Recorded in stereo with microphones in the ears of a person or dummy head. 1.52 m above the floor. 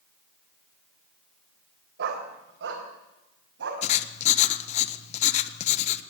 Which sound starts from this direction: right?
A dog barking, at 2.0 s.